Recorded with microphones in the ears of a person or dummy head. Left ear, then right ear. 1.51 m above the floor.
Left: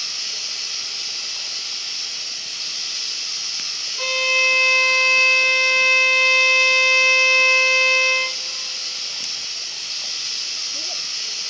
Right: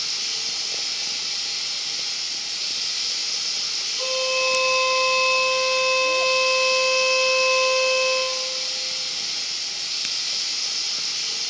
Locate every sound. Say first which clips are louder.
0.0 s running water: even; 50° left (ahead or behind), 4.5 m
4.0 s a violin: left 6 dB; 60° left (ahead or behind), 0.6 m